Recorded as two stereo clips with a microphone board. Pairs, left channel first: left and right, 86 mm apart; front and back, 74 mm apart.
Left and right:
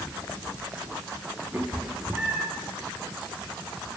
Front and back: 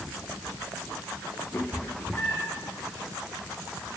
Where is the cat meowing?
35° right, 1.4 m.